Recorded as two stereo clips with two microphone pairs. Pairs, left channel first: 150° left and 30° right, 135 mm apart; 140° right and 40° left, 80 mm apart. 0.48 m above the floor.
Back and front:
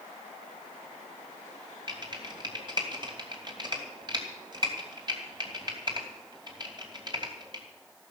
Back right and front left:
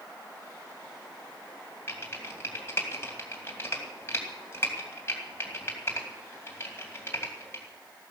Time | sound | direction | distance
1.9 | typing on a keyboard | 85° right | 2.5 m